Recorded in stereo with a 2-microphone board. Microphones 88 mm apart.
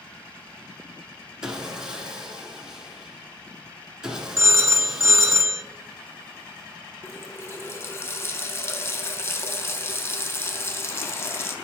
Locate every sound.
1.4 s sawing: 10° right (ahead or behind), 1.3 m
4.4 s a phone ringing: 35° right (ahead or behind), 0.7 m
7.0 s a running tap: 30° left (ahead or behind), 0.8 m